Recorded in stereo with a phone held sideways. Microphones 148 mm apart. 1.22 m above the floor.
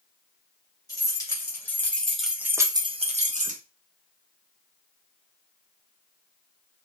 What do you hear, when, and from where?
0.9 s keys jangling: 25° left (ahead or behind), 1.2 m; by 3.6 s 60° right (ahead or behind), 0.6 m